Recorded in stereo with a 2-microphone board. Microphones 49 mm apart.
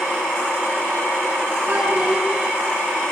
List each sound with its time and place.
1.7 s a child speaking: 35° right (ahead or behind), 9 m